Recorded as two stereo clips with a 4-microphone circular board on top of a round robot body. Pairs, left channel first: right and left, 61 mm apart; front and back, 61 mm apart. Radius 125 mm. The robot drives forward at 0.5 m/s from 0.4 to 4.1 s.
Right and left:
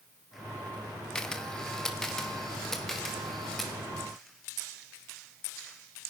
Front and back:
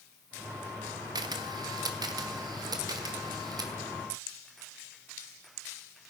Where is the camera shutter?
170° right, 1.1 m; by 3.7 s 175° right, 2.5 m.